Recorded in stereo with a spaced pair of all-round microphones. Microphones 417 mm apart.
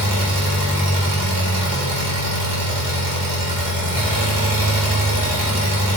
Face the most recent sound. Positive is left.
turn(degrees=-50)  # may be behind; listen again after turning